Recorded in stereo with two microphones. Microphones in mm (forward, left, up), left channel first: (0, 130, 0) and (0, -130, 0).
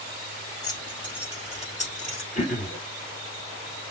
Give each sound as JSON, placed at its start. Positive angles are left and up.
{"t": 0.6, "sound": "keys jangling", "side_deg": 15, "distance_m": 1.9}
{"t": 2.4, "sound": "throat clearing", "side_deg": 30, "distance_m": 2.0}